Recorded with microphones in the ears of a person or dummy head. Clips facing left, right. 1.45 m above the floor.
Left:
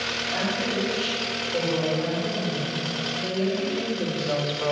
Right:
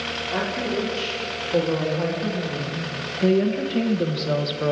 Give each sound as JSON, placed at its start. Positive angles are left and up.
{"t": 0.3, "sound": "a woman speaking", "side_deg": -70, "distance_m": 3.5}